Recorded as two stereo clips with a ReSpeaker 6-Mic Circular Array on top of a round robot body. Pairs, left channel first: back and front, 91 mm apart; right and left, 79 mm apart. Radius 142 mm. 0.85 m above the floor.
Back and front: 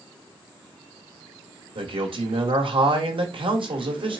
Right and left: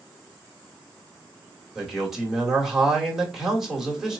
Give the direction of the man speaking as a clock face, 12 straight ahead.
12 o'clock.